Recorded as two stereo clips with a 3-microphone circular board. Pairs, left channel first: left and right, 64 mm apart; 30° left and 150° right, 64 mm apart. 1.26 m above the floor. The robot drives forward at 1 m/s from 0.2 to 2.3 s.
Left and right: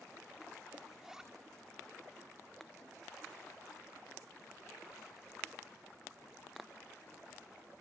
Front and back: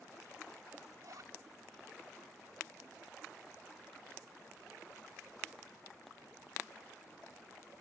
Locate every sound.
0.9 s a zipper: 170° right, 1.7 m